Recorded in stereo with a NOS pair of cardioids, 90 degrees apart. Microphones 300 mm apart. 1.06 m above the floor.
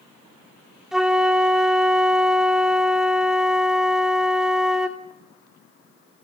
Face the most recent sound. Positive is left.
turn(degrees=0)